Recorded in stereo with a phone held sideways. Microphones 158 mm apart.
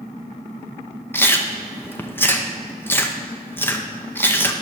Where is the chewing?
15° left (ahead or behind), 0.7 m.